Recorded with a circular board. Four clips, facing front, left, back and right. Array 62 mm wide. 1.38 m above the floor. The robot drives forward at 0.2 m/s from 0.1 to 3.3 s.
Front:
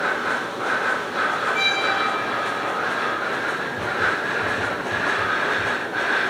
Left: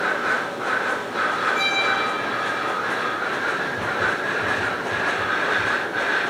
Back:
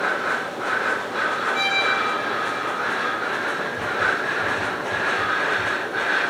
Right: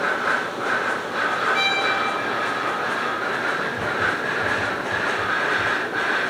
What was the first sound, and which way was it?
A violin, 100° right.